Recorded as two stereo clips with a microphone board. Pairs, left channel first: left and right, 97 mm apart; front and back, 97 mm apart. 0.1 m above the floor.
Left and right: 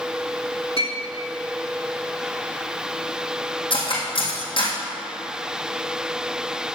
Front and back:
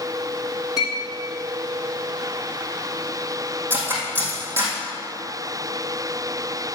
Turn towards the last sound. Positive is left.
turn(degrees=115)